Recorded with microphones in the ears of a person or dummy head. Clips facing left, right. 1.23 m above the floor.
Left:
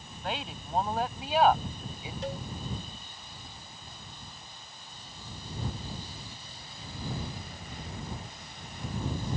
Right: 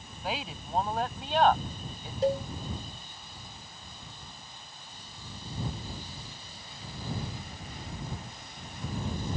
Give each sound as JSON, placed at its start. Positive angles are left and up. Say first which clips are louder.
{"t": 0.2, "sound": "a woman speaking", "louder": "right 1 dB", "side_deg": 0}
{"t": 2.2, "sound": "a cowbell", "louder": "right 10 dB", "side_deg": -30}